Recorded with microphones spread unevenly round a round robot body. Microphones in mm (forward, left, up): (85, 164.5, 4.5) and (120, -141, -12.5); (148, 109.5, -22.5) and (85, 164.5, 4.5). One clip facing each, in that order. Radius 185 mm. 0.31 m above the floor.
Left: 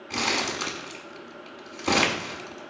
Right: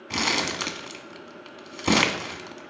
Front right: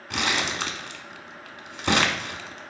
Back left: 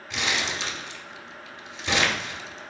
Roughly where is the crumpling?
Ahead right.